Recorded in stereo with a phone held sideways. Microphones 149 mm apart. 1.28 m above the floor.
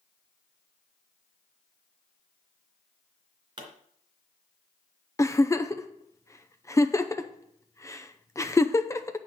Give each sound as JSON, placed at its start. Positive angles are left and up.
{"t": 3.6, "sound": "a pop", "side_deg": -30, "distance_m": 2.5}
{"t": 5.2, "sound": "a giggle", "side_deg": 20, "distance_m": 0.6}